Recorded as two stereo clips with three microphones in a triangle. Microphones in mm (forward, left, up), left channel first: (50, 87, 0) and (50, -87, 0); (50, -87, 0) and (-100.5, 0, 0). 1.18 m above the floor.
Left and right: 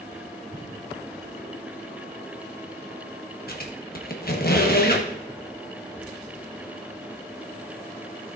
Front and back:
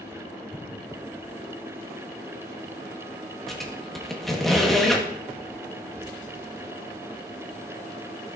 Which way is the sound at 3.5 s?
60° left.